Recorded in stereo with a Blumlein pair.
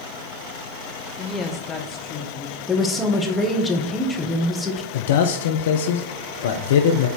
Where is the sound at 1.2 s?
5° left, 0.7 m; by 2.6 s 30° left, 2 m.